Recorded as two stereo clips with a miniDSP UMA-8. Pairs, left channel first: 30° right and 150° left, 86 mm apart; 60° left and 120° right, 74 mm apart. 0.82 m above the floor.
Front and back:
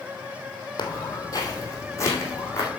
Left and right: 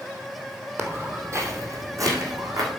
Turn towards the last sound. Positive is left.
turn(degrees=-90)